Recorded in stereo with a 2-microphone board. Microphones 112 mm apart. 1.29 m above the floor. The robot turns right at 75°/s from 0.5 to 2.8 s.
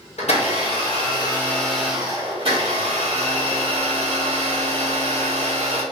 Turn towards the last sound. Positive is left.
turn(degrees=-100)